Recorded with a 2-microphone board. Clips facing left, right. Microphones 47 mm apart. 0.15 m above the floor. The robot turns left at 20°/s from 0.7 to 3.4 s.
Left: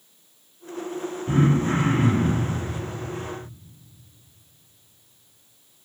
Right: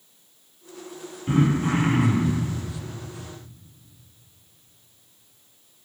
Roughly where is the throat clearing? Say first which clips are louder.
Even; right.